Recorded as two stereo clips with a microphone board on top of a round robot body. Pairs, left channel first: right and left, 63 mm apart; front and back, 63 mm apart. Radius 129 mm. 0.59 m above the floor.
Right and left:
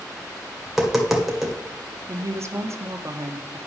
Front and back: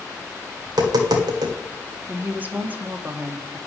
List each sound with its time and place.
0.7 s tapping: 175° left, 1.6 m
2.1 s a woman speaking: 120° left, 1.2 m